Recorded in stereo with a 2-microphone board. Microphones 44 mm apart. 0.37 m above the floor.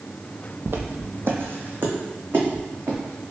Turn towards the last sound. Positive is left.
turn(degrees=-45)  # may be behind; listen again after turning